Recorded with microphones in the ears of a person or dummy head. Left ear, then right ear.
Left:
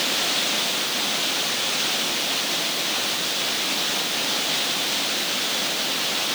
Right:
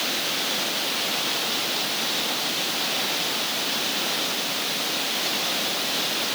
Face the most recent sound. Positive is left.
No sound to turn to.